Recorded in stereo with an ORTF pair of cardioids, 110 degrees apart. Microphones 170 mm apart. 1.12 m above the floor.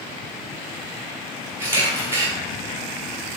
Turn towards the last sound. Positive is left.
turn(degrees=-15)